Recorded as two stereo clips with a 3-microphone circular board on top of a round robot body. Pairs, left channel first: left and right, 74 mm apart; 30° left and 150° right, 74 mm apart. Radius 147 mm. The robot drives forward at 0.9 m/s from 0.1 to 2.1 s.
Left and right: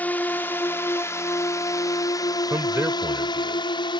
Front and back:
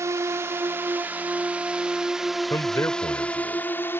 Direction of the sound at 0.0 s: 160° left.